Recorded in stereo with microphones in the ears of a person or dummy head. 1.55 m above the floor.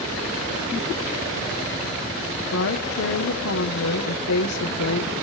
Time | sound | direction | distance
2.5 | a woman speaking | 85° left | 1.3 m